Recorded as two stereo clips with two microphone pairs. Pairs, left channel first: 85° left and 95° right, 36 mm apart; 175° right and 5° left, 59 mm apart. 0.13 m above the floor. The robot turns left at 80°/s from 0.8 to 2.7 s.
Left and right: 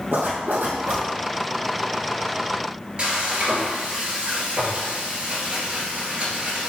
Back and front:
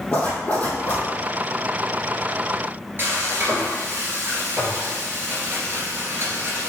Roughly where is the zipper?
Right.